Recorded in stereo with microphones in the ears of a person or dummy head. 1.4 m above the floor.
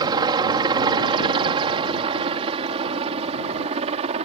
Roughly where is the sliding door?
No sliding door in this recording.